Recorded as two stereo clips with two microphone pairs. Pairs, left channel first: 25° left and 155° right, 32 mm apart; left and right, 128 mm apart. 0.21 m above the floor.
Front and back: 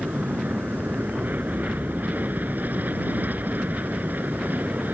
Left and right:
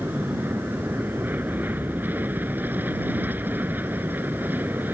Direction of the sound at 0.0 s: 165° right.